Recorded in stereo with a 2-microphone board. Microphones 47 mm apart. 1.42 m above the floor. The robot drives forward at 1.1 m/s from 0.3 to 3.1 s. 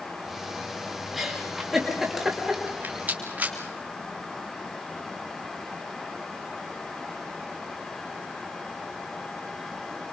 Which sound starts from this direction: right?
A rattle, at 2.7 s.